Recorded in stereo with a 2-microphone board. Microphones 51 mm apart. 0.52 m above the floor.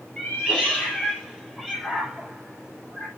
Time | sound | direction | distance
0.2 | a cat meowing | 20° left (ahead or behind) | 5 m